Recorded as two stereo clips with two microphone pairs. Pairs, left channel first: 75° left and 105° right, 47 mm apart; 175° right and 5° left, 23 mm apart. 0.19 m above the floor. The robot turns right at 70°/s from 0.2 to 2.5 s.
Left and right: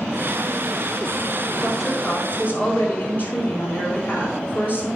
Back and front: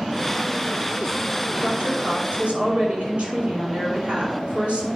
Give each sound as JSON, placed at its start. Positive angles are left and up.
{"t": 1.6, "sound": "a woman speaking", "azimuth_deg": -30, "distance_m": 5.0}